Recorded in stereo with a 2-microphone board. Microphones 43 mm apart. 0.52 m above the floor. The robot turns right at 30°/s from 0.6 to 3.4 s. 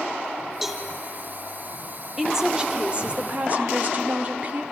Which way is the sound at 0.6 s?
10° right (ahead or behind).